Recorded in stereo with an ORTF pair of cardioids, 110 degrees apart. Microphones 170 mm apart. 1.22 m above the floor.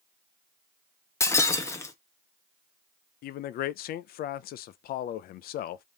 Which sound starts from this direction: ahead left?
A man speaking, at 3.2 s.